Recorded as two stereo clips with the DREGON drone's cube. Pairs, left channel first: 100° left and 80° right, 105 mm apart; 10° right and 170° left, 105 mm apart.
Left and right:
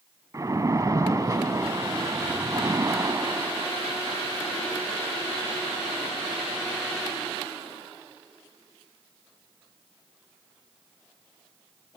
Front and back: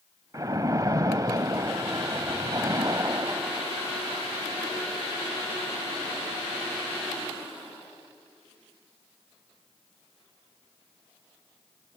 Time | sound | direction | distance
0.3 | a splash | 135° right | 0.9 m